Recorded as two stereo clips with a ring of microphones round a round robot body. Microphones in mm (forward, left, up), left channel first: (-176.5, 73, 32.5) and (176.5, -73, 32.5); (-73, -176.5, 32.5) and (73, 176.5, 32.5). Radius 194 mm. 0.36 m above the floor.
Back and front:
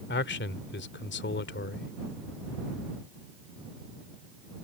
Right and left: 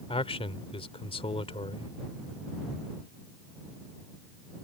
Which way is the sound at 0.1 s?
175° right.